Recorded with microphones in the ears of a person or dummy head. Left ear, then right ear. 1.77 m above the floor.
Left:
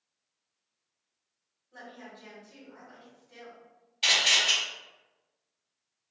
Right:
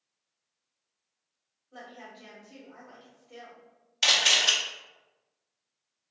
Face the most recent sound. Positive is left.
turn(degrees=-55)  # may be behind; listen again after turning